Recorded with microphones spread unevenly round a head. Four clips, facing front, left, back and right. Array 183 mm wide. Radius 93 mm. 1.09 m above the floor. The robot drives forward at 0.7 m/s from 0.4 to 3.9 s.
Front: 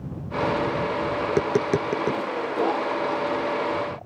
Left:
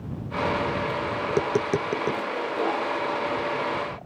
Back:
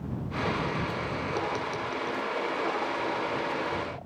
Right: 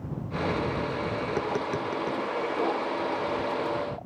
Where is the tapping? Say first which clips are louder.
Left 7 dB, front 10 dB; 25° left.